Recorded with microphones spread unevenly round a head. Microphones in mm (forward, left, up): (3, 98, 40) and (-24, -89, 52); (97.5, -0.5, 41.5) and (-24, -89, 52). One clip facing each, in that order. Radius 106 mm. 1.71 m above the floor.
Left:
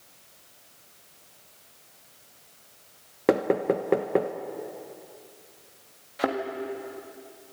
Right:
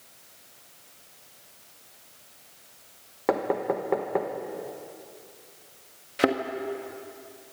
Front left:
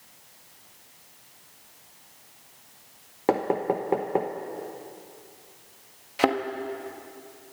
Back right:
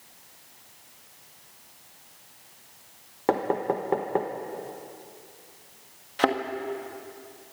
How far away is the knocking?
About 0.9 m.